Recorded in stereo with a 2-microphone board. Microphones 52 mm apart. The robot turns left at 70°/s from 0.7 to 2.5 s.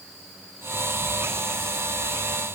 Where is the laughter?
I don't hear laughter.